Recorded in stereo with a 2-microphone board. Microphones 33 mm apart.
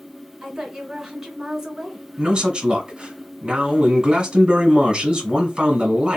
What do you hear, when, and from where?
0.4 s a woman speaking: 15° right (ahead or behind), 1.9 m
2.2 s a man speaking: 30° right (ahead or behind), 1.3 m